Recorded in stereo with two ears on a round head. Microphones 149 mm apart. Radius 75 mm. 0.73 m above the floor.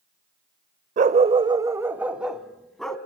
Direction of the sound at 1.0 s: 50° right (ahead or behind).